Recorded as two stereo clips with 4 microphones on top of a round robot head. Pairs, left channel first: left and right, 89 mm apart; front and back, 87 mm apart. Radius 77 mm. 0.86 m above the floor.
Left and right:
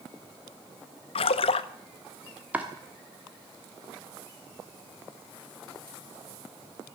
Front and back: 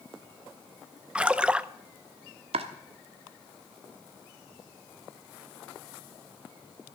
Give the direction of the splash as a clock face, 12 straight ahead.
9 o'clock.